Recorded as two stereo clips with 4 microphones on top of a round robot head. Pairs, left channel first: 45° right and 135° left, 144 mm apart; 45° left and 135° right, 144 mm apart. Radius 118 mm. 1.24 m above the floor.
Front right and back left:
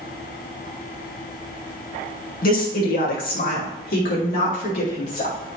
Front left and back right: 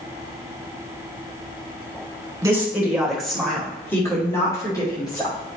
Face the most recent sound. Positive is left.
turn(degrees=-15)